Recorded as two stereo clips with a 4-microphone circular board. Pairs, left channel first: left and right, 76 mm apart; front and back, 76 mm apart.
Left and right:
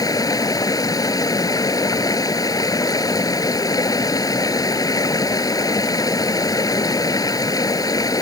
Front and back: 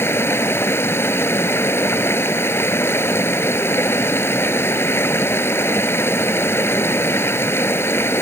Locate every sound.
0.0 s running water: 55° left